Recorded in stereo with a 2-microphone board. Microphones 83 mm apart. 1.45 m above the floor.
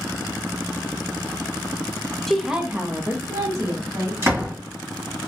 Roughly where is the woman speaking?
Centre.